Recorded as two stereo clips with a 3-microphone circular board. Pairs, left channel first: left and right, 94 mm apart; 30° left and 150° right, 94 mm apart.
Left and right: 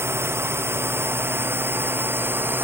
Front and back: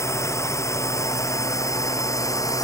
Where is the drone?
30° right; by 2.6 s 25° right.